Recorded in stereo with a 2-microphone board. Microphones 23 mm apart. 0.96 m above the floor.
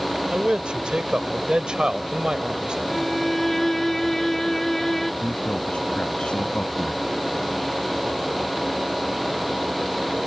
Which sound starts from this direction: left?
A man speaking, at 5.2 s.